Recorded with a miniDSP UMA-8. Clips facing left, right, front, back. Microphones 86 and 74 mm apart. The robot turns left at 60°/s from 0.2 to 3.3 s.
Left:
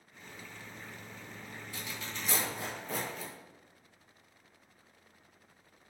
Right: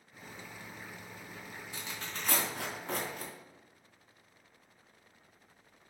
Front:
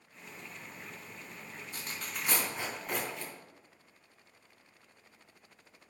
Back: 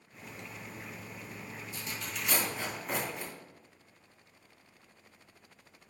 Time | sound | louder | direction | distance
0.1 | cutlery clinking | right 1 dB, back 2 dB | 140° right | 0.7 m
1.7 | tearing paper | even, even | 20° right | 3 m